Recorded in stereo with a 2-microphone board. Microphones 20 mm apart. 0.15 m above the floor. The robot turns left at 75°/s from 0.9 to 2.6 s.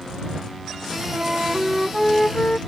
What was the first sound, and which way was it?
A flute, 120° right.